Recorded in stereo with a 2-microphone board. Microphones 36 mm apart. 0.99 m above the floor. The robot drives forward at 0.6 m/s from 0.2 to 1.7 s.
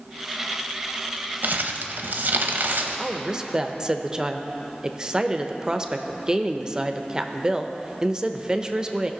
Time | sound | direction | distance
1.4 | crumpling | 60° right (ahead or behind) | 0.9 m
3.0 | a woman speaking | 20° right (ahead or behind) | 0.6 m